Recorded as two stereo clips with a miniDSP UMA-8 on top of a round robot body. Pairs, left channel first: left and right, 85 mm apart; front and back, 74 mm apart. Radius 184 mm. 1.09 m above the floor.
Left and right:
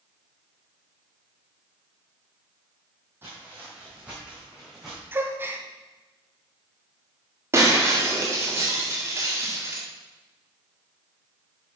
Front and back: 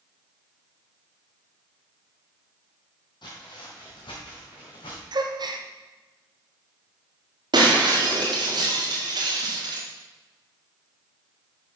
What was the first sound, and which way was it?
Footsteps, 25° right.